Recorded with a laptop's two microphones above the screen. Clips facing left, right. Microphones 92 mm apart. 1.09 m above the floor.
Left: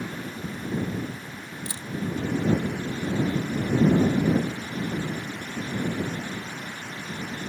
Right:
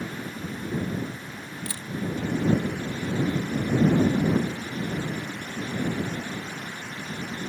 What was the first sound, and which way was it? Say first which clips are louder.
A camera shutter: even; 25° left (ahead or behind).